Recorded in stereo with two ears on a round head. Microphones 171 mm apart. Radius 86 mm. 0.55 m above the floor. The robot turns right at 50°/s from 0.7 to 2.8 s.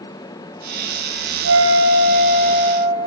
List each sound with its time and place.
1.4 s a flute: 85° right, 4 m; by 3.0 s 15° right, 4 m